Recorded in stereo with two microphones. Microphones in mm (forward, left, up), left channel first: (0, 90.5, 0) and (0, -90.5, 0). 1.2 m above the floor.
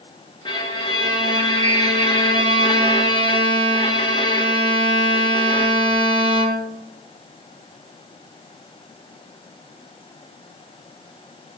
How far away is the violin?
About 1.6 m.